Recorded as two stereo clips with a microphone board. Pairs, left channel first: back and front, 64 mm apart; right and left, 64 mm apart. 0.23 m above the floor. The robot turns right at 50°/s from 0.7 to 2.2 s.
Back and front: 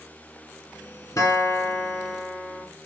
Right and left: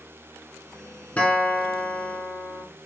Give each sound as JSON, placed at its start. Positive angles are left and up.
{"t": 1.2, "sound": "a guitar", "azimuth_deg": -155, "distance_m": 0.9}